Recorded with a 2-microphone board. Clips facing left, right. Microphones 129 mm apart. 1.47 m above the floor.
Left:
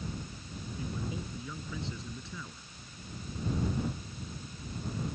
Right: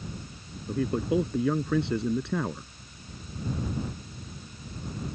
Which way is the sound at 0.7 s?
65° right (ahead or behind).